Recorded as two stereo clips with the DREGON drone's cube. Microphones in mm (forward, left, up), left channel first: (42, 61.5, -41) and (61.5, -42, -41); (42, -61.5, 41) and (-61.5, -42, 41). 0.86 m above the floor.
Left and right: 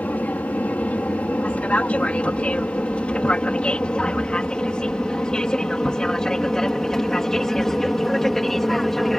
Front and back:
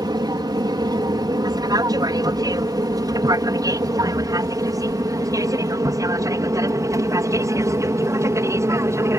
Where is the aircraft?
170° left; by 9.2 s 175° right.